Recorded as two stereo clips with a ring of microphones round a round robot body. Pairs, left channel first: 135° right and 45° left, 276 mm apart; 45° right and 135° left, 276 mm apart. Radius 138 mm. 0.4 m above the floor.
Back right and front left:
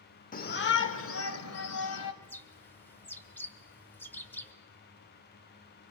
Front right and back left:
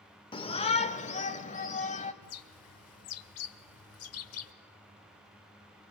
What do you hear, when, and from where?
0.3 s a shout: 105° right, 0.8 m
2.2 s a bird: 55° right, 1.0 m